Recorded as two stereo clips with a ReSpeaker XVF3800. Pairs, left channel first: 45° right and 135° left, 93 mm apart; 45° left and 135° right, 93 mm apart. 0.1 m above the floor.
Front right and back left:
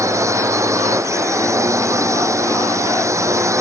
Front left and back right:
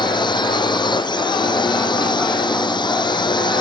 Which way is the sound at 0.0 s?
80° left.